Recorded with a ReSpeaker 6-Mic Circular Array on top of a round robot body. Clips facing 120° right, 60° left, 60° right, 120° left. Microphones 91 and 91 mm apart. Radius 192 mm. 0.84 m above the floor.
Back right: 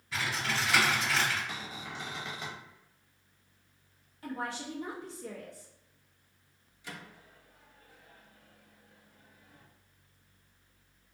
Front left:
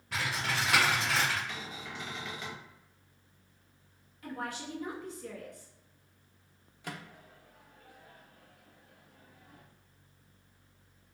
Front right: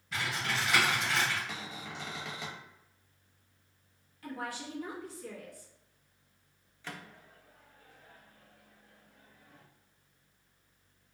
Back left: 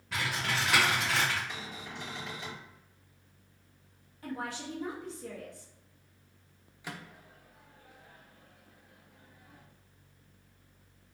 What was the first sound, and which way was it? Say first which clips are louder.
Typing on a keyboard: even, back left 1 dB; 95° left.